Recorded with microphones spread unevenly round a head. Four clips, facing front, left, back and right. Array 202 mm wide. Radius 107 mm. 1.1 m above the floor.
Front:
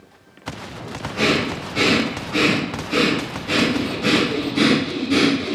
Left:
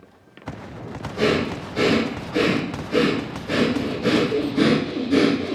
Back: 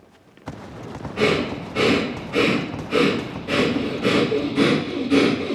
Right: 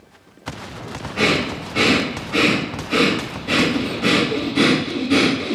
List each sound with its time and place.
1.2 s breathing: 90° right, 1.7 m